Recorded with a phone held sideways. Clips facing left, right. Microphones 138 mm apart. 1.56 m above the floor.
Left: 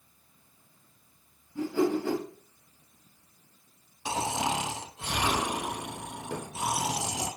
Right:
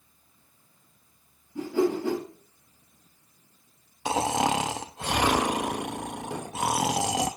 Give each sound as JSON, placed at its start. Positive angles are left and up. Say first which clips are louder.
{"t": 1.6, "sound": "a whoosh", "louder": "right 2 dB", "side_deg": -20, "distance_m": 4.5}
{"t": 4.0, "sound": "snoring", "louder": "right 5 dB", "side_deg": -70, "distance_m": 0.7}
{"t": 6.3, "sound": "a thud", "louder": "right 3 dB", "side_deg": -10, "distance_m": 2.5}